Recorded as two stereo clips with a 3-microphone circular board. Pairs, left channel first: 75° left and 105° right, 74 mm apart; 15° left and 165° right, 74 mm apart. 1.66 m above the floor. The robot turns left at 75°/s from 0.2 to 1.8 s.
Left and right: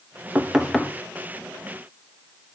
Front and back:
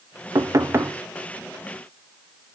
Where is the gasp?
I don't hear a gasp.